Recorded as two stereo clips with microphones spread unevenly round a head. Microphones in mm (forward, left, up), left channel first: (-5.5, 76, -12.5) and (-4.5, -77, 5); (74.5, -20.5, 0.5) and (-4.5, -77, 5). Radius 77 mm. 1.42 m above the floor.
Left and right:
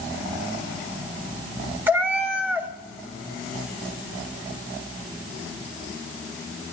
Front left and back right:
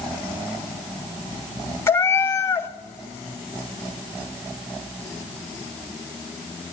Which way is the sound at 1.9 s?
20° right.